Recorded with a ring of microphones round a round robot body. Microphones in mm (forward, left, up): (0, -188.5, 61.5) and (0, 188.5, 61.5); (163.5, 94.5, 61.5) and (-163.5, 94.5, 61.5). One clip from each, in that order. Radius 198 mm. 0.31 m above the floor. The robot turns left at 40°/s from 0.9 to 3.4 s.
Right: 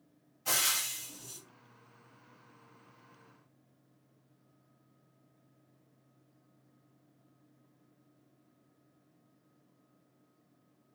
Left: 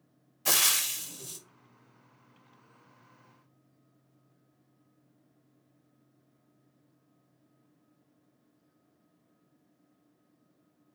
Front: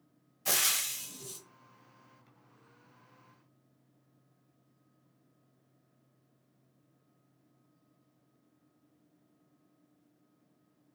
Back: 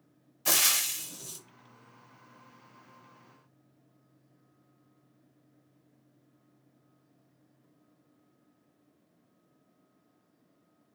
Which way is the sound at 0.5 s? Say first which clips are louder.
Left 5 dB, back 4 dB; 115° left.